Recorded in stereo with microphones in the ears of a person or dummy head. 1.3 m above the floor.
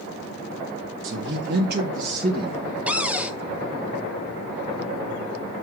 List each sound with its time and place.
1.0 s a man speaking: 75° right (ahead or behind), 1.4 m; by 2.6 s 35° right (ahead or behind), 1.6 m
2.9 s a cupboard door: 10° right (ahead or behind), 0.8 m